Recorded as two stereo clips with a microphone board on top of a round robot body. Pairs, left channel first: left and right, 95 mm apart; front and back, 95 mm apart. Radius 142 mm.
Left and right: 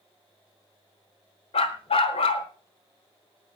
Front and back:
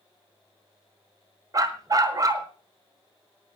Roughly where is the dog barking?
Behind left.